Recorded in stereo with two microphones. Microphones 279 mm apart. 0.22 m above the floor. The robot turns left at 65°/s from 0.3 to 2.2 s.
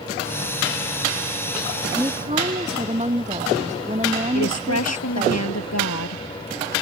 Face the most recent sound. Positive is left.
turn(degrees=65)  # may be behind; listen again after turning